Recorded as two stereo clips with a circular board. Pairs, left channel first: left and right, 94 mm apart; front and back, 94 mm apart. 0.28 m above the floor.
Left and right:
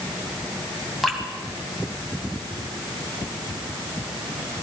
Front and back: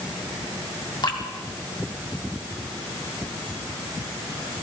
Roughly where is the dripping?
Ahead.